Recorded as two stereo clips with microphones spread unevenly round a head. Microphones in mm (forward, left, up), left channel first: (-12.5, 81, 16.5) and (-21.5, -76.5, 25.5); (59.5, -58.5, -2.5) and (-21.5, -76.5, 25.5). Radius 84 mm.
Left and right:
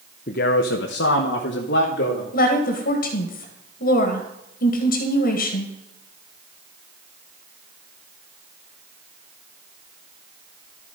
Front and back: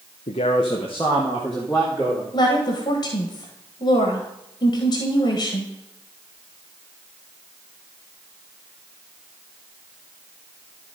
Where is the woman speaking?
55° left, 1.7 m.